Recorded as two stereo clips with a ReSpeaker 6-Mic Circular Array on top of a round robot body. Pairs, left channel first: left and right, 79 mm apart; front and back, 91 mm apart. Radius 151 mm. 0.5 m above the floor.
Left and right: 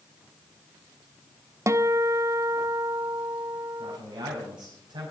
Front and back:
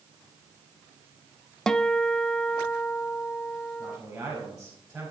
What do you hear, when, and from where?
1.7 s a guitar: 80° right, 0.9 m
3.8 s a man speaking: 100° right, 5 m